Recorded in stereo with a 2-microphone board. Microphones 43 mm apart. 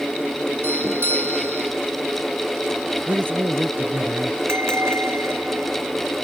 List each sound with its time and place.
0.6 s a doorbell: 65° right (ahead or behind)
3.1 s a man speaking: 50° right (ahead or behind)
4.5 s a bell: 80° right